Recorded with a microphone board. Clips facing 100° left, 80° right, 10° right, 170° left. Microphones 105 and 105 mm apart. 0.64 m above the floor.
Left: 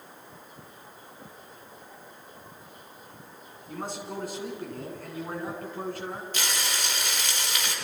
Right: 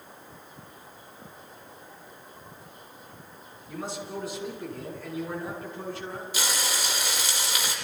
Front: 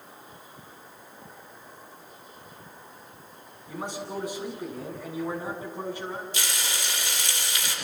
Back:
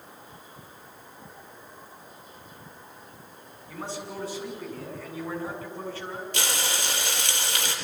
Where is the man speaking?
60° left, 8 m.